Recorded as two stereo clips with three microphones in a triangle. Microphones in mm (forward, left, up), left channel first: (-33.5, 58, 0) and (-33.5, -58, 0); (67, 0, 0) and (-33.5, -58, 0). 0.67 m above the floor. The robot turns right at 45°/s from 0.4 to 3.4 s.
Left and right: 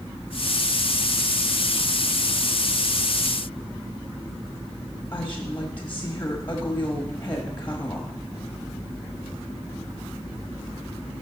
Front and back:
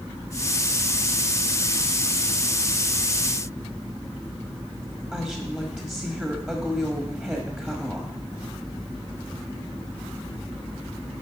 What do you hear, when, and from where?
5.1 s a woman speaking: 150° left, 1.1 m